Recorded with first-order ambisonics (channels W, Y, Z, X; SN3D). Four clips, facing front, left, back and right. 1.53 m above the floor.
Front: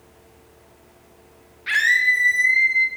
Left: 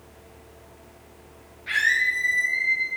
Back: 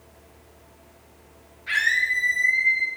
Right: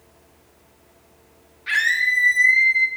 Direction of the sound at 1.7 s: 15° right.